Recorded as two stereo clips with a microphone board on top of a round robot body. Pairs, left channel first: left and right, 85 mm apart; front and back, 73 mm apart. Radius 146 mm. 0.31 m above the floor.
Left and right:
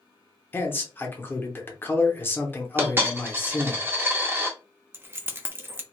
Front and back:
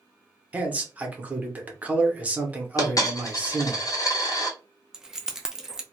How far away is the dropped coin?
About 0.8 m.